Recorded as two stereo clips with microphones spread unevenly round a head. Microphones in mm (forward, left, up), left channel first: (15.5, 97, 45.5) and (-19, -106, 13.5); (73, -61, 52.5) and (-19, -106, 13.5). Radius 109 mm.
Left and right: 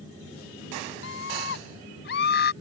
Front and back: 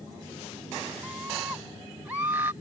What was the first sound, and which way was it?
A scream, 120° left.